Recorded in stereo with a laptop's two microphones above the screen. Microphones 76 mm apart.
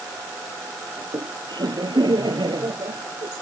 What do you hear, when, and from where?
1.0 s laughter: 80° right